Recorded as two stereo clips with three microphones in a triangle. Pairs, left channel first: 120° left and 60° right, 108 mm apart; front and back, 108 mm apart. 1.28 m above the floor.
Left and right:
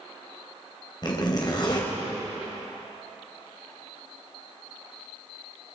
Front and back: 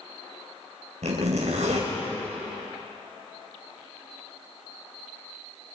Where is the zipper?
170° left, 4.5 m.